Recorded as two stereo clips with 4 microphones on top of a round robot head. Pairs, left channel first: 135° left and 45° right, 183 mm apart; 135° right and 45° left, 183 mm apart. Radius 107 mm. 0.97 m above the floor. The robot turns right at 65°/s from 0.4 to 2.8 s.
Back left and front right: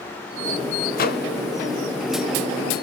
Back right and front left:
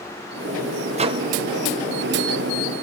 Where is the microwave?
95° left, 1.0 m; by 1.3 s 115° left, 1.0 m.